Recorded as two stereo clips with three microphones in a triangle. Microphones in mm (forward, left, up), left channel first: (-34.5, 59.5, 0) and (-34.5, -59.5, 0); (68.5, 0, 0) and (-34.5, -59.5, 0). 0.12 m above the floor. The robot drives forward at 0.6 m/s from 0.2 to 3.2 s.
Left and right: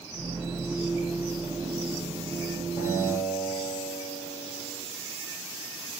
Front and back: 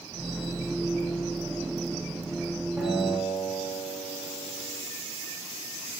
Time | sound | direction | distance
2.8 | a guitar | 140° left | 7 m